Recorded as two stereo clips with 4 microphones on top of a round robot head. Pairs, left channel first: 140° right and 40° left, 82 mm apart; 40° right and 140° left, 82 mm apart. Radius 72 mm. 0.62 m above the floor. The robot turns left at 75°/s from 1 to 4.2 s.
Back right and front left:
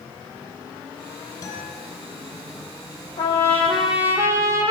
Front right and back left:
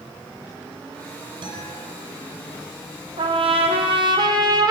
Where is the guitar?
170° left, 7 m; by 1.8 s 140° left, 7 m.